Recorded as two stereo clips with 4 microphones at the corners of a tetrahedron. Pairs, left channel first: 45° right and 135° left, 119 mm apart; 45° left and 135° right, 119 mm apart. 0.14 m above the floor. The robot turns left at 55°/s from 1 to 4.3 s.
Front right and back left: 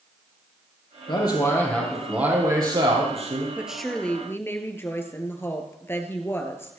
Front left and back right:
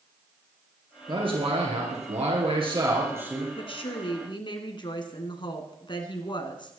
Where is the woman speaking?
60° left, 1.7 m; by 6.8 s 20° left, 1.7 m.